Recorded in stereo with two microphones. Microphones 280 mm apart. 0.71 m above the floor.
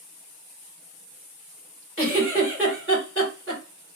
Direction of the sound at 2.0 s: 40° right (ahead or behind).